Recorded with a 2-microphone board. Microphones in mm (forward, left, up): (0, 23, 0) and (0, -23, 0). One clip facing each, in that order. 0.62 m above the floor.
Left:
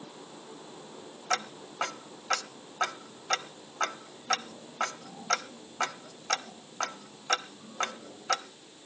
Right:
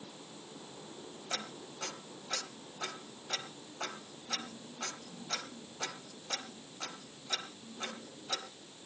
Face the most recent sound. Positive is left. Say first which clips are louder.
# left 10 dB
turn(degrees=70)  # may be behind; listen again after turning